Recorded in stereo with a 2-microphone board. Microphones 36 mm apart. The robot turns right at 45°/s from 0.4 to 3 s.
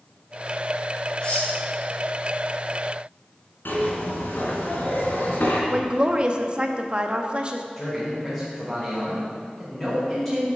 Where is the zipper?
75° left (ahead or behind), 2.5 m.